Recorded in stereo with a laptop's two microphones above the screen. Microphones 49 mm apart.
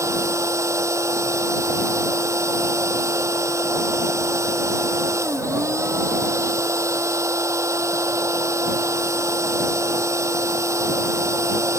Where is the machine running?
75° right (ahead or behind).